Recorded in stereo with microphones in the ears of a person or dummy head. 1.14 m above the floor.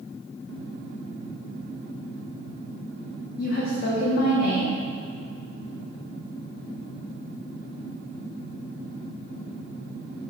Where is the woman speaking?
55° left (ahead or behind), 0.5 m.